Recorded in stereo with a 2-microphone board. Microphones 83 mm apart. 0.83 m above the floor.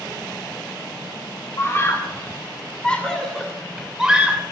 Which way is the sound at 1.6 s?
35° left (ahead or behind).